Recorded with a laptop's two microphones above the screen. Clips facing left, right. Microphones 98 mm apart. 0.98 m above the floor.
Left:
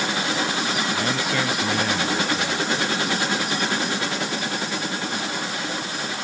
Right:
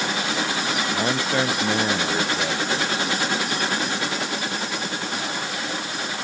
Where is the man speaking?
30° right (ahead or behind).